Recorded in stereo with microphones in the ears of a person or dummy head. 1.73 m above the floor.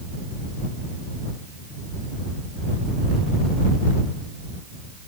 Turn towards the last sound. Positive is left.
No sound to turn to.